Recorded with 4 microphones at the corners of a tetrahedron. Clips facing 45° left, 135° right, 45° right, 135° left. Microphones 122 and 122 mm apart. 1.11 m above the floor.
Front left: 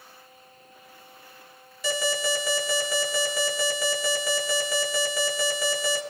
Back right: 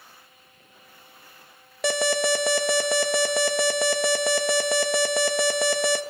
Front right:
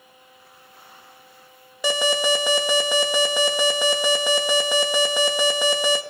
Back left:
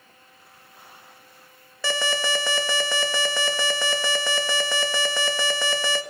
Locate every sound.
1.8 s an alarm: 120° right, 1.6 m